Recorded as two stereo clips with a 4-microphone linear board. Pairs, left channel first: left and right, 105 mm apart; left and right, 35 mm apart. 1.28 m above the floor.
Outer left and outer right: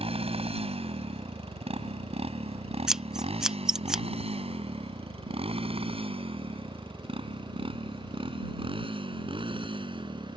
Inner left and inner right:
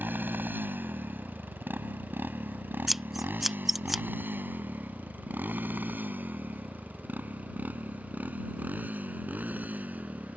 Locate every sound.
0.0 s a motorcycle: 70° right (ahead or behind); by 10.4 s 55° right (ahead or behind)
2.9 s scissors: 5° right (ahead or behind)